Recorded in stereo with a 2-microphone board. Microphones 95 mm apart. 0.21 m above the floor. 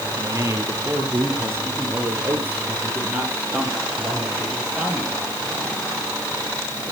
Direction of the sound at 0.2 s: 35° right (ahead or behind).